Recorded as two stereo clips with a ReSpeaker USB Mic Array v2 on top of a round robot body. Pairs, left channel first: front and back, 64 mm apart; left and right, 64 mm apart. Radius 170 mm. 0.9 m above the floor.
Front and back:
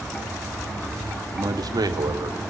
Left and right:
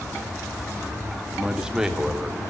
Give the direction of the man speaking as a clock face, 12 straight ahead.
6 o'clock.